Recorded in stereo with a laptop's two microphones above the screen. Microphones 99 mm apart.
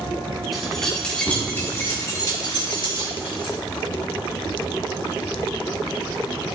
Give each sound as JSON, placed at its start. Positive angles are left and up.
{"t": 0.5, "sound": "keys jangling", "side_deg": 0, "distance_m": 1.8}